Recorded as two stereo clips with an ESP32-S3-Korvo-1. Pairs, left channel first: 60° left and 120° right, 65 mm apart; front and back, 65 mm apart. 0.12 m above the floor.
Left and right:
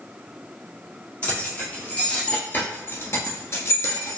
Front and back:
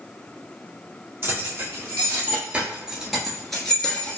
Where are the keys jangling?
130° left, 1.8 m; by 4.2 s 65° left, 1.1 m.